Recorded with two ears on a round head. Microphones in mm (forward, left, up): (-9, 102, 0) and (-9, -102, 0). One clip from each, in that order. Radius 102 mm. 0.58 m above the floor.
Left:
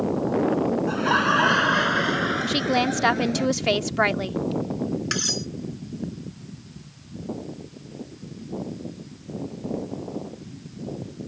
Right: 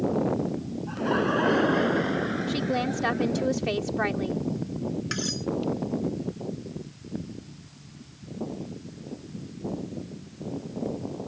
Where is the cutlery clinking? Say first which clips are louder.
Left 7 dB; 20° left (ahead or behind).